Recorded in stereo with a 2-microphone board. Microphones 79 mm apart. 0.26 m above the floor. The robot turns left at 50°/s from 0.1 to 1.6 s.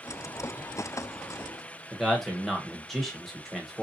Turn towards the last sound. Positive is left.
turn(degrees=0)  # may be behind; listen again after turning